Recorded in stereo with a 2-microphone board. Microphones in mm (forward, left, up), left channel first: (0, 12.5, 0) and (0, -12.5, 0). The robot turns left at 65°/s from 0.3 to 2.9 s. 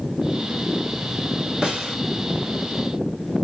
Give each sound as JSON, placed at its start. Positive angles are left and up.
{"t": 1.6, "sound": "a snare drum", "side_deg": -40, "distance_m": 1.5}